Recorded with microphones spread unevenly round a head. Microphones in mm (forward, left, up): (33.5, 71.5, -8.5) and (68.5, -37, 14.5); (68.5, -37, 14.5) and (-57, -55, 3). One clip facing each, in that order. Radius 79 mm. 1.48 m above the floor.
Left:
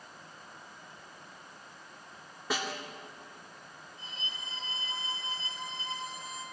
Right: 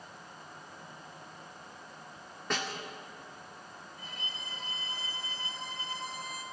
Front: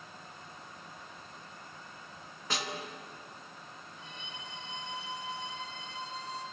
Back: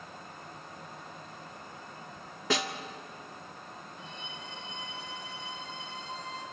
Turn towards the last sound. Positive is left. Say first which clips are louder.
# even, back 3 dB
turn(degrees=45)